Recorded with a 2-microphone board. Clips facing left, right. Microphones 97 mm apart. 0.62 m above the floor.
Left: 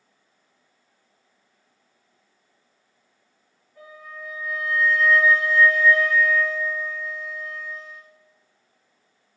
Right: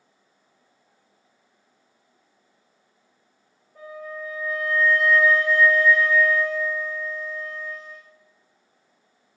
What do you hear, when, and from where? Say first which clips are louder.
3.8 s a flute: right 6 dB; 65° right (ahead or behind), 1.7 m